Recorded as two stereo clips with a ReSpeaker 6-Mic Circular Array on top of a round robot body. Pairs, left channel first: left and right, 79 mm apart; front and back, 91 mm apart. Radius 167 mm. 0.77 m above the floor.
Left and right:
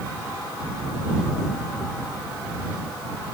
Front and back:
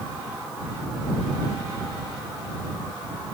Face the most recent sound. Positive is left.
No sound to turn to.